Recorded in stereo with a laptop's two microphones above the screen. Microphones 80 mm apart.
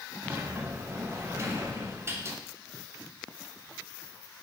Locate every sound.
0.2 s a sliding door: 30° right (ahead or behind), 0.7 m